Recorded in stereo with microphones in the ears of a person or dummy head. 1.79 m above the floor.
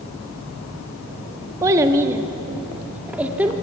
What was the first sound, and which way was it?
A child speaking, 20° right (ahead or behind).